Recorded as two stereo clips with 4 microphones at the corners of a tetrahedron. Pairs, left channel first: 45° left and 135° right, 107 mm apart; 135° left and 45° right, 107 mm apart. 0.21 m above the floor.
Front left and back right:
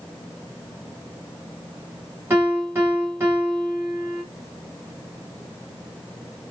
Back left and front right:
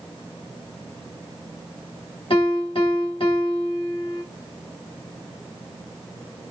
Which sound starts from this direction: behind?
A piano, at 2.3 s.